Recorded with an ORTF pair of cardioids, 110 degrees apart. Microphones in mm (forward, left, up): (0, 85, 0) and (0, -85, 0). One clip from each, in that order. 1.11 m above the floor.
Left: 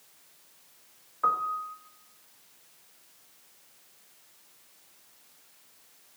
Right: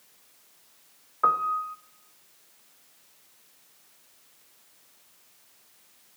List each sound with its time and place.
1.2 s a piano: 30° right, 0.7 m